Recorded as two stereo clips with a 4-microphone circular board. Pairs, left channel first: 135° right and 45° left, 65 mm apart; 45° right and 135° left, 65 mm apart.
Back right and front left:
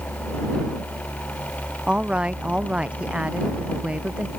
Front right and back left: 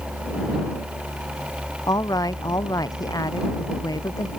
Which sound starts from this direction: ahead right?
A woman speaking, at 1.9 s.